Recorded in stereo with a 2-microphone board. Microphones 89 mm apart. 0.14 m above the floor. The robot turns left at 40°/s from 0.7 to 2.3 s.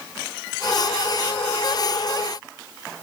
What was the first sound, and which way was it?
Only background noise.